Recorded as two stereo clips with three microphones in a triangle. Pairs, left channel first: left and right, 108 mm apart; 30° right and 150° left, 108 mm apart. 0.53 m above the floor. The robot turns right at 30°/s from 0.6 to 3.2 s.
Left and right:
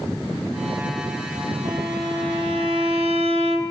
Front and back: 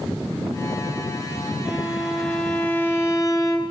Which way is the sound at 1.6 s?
135° right.